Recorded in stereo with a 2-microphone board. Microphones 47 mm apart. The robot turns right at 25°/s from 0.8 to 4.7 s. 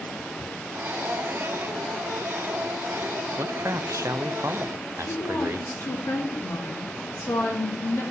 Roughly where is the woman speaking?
Left.